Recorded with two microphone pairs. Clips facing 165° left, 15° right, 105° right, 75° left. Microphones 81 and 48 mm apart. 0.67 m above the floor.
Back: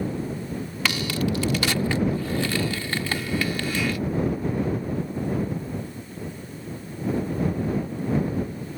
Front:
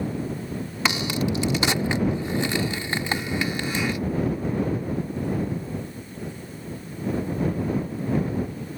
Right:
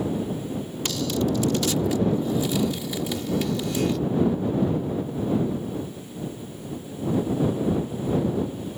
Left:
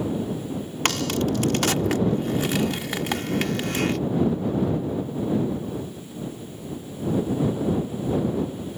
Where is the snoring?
No snoring in this recording.